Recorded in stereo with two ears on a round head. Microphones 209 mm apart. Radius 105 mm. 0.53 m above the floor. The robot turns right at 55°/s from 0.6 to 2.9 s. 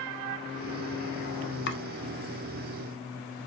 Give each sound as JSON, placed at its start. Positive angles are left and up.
{"t": 1.7, "sound": "chopping", "side_deg": 50, "distance_m": 0.7}